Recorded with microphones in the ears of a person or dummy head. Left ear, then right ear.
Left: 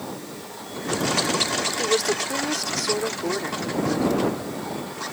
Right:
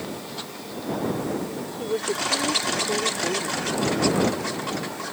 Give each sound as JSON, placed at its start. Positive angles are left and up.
{"t": 1.8, "sound": "a woman speaking", "side_deg": 55}